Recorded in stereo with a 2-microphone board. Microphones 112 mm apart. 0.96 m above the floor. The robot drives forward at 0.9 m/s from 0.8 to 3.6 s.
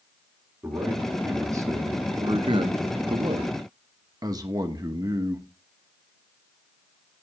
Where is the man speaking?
20° right (ahead or behind), 1.9 m; by 5.5 s 35° right (ahead or behind), 1.2 m.